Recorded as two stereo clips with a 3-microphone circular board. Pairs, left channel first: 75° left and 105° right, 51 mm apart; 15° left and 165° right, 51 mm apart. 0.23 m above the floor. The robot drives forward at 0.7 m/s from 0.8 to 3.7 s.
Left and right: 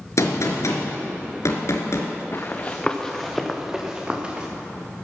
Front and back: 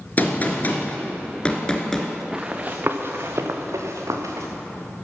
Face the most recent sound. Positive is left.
turn(degrees=-170)